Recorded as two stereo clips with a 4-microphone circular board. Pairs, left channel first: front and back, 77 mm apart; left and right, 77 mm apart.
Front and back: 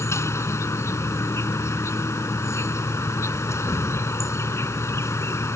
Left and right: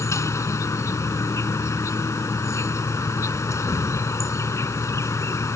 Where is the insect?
45° left.